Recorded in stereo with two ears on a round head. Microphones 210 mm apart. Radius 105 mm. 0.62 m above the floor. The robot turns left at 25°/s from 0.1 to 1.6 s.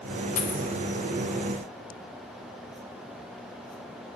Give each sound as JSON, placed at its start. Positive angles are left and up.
{"t": 0.4, "sound": "a dropped coin", "side_deg": 35, "distance_m": 0.8}